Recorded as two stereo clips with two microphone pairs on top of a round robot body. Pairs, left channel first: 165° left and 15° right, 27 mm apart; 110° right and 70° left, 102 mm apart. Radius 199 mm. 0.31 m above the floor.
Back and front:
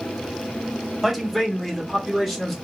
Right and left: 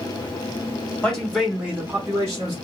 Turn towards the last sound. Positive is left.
turn(degrees=65)